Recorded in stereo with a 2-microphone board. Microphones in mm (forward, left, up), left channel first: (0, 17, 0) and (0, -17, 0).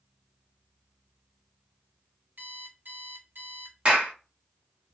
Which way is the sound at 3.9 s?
30° right (ahead or behind).